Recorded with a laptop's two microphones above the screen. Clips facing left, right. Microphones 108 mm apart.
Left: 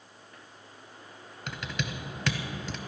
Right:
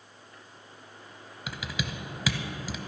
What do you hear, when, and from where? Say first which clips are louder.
1.5 s typing on a keyboard: even; 5° right (ahead or behind), 0.8 m